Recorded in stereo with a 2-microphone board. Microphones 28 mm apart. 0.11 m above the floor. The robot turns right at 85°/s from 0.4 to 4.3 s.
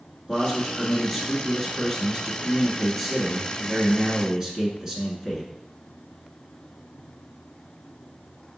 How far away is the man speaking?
About 1.1 m.